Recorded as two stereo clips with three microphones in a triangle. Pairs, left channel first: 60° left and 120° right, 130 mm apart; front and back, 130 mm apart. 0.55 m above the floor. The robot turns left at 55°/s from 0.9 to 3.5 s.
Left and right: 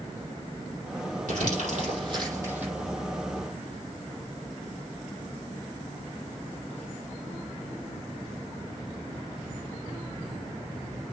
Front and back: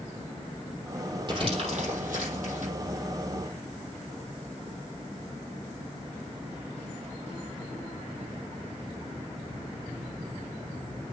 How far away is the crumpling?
About 7 m.